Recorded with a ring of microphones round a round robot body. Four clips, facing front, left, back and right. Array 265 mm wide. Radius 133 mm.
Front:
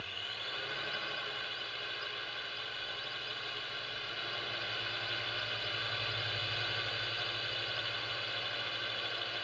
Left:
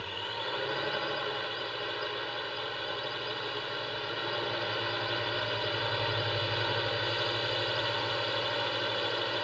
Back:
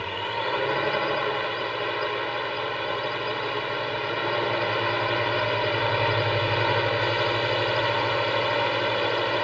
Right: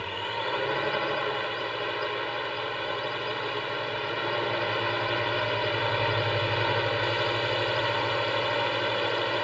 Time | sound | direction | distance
0.0 | a drone | 160° right | ?